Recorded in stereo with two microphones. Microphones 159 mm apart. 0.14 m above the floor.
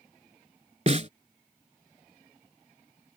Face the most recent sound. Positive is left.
turn(degrees=-45)  # may be behind; listen again after turning